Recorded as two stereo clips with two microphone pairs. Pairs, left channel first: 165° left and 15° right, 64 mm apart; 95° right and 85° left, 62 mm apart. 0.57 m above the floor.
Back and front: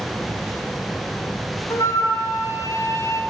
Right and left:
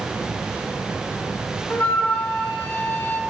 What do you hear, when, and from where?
1.7 s a flute: 160° right, 1.2 m